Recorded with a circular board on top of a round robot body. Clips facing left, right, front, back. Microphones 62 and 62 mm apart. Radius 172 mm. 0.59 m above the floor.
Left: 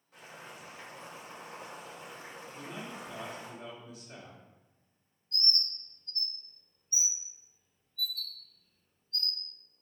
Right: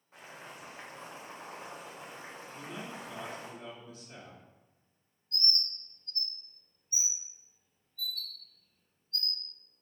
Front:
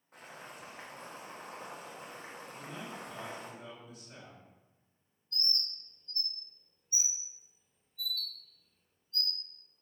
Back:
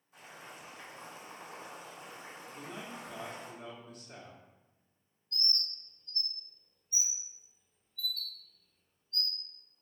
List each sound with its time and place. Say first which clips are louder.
0.1 s boiling: even, front 1 dB; 30° right, 1.4 m
2.5 s a man speaking: even, back 1 dB; 170° left, 1.7 m
5.3 s a bird: even, back 1 dB; 70° right, 1.3 m